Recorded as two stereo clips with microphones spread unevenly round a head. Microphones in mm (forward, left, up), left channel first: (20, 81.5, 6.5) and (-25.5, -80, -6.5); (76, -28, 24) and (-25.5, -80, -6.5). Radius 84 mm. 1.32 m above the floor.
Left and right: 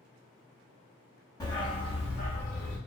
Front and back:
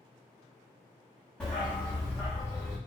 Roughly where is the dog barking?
Ahead left.